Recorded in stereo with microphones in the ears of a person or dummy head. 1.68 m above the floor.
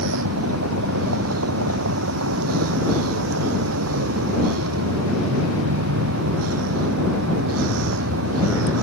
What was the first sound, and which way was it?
A vehicle, 85° right.